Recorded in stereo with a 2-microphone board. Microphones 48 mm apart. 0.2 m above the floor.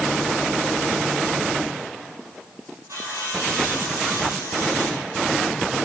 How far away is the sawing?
About 9 m.